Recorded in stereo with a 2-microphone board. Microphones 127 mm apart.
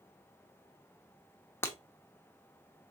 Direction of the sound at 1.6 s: 20° left (ahead or behind).